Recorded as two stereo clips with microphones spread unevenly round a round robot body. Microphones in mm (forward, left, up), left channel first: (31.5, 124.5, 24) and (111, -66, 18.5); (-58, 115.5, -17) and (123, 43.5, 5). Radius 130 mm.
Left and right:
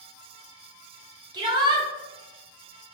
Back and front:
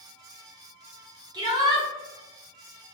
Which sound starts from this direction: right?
A shout, at 1.3 s.